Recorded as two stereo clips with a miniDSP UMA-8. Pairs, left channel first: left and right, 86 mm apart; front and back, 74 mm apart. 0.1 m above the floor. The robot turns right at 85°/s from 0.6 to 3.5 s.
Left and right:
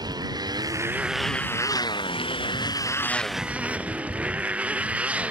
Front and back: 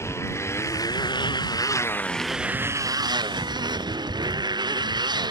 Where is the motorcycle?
50° right; by 5.3 s 165° right.